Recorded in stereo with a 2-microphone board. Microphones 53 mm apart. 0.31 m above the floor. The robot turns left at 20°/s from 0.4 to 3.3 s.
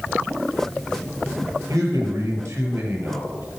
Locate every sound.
1.7 s a man speaking: 105° right, 6 m; by 3.5 s 135° right, 6 m